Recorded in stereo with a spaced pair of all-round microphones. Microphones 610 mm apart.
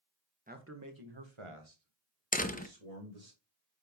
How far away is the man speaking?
About 1.7 m.